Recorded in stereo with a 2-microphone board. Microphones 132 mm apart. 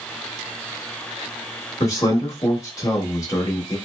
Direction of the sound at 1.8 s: 25° left (ahead or behind).